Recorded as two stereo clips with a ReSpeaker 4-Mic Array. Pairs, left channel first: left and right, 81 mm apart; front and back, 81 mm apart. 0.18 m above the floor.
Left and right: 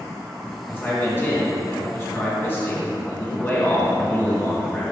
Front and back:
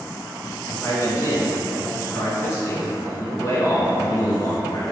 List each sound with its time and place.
0.7 s a man speaking: 40° left, 2 m